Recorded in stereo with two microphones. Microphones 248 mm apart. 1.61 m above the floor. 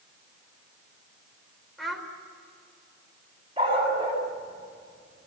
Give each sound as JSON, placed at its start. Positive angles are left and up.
{"t": 1.8, "sound": "a child speaking", "side_deg": 0, "distance_m": 4.5}
{"t": 3.6, "sound": "a dog barking", "side_deg": -20, "distance_m": 5.5}